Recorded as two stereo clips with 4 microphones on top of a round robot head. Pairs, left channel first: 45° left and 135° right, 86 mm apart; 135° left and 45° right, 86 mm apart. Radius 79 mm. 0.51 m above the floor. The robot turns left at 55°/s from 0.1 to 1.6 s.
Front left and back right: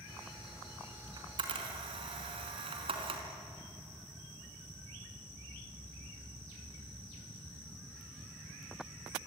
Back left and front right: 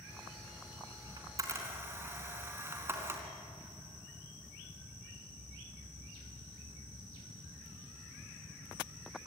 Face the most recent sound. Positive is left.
turn(degrees=-110)